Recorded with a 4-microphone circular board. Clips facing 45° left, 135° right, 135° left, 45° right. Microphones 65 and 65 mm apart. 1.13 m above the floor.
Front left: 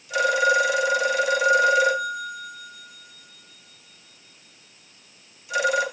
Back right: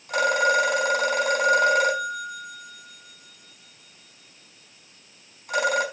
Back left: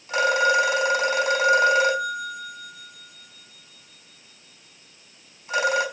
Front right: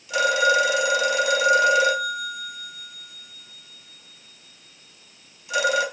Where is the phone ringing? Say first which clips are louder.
Front left 1 dB, even; 175° right, 5.5 m.